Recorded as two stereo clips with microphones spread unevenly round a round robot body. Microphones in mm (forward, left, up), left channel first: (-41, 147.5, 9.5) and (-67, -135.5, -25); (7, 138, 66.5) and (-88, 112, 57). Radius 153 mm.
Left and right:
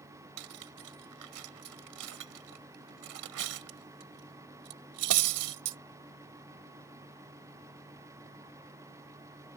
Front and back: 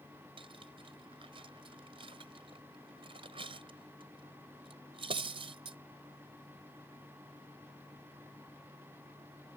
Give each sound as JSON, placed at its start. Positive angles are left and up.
{"t": 0.4, "sound": "cutlery clinking", "azimuth_deg": -115}